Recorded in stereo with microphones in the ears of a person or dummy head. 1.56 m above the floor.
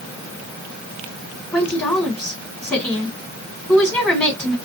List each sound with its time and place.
1.5 s a woman speaking: 10° left (ahead or behind), 1.7 m